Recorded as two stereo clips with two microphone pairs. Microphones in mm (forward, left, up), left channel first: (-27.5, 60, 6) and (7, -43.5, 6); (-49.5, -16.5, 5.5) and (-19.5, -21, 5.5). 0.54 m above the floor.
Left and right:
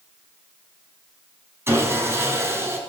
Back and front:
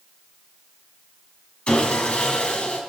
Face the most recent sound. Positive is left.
turn(degrees=-140)